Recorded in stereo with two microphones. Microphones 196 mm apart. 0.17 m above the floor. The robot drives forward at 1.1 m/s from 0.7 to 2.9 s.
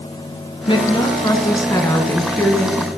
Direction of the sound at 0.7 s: 25° left (ahead or behind).